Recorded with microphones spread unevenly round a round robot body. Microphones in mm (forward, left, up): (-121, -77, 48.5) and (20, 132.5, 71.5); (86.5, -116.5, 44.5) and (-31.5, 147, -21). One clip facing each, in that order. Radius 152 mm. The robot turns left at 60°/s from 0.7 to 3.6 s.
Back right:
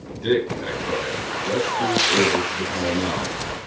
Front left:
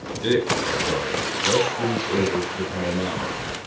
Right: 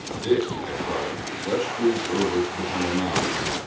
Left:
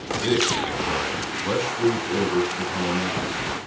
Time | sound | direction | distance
0.2 | a man speaking | 90° left | 3.5 m